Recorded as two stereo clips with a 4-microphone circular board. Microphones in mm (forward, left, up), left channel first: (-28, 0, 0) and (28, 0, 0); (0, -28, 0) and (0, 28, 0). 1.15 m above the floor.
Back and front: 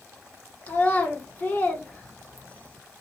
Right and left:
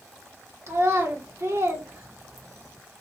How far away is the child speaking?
About 1.2 m.